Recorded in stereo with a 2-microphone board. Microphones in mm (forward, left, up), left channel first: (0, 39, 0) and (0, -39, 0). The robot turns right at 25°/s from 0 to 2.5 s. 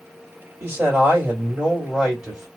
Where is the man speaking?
55° right, 1.7 m; by 2.5 s 5° right, 1.7 m.